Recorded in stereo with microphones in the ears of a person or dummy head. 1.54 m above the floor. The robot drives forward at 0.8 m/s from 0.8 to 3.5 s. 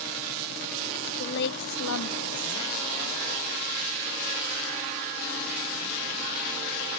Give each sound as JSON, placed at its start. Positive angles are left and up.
{"t": 1.2, "sound": "a woman speaking", "side_deg": 55, "distance_m": 0.9}